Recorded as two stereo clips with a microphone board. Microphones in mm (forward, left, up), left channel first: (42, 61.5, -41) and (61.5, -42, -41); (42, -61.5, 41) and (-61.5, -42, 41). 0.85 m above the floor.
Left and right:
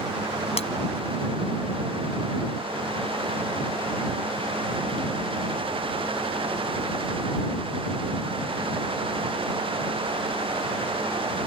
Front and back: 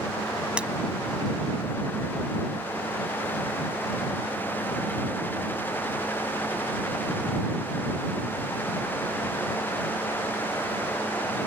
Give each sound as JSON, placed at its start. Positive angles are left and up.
{"t": 0.6, "sound": "breaking glass", "azimuth_deg": 90}